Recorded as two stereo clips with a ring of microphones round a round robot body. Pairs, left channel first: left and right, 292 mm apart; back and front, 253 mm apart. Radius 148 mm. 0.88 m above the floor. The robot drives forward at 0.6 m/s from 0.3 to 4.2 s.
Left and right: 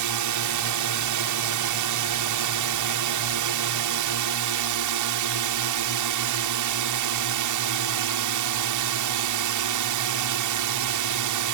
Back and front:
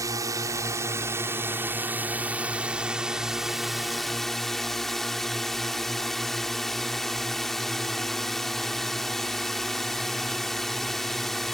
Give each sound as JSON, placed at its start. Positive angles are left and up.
{"t": 0.0, "sound": "a drone", "azimuth_deg": -80}